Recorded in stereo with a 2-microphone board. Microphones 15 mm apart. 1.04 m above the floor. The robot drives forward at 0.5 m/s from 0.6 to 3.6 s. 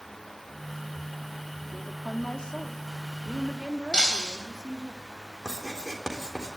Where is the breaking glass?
70° left (ahead or behind), 3.5 m.